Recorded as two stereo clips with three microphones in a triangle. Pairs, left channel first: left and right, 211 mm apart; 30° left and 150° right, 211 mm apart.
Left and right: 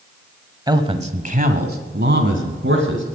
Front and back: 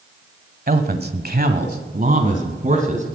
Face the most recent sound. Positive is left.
turn(degrees=-100)